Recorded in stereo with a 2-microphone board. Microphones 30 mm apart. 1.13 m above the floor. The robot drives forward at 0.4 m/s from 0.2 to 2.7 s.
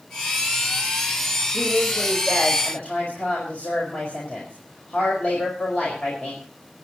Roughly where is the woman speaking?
Left.